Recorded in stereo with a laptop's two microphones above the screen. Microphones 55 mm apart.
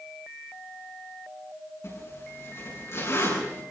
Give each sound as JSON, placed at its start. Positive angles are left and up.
{"t": 1.8, "sound": "a zipper", "side_deg": 55, "distance_m": 8.5}